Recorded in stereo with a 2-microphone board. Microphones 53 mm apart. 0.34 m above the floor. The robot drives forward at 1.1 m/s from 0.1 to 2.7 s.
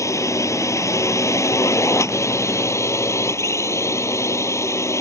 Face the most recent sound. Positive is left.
turn(degrees=65)  # may be behind; listen again after turning